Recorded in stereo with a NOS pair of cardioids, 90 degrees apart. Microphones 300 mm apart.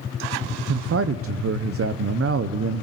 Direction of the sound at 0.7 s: 50° right.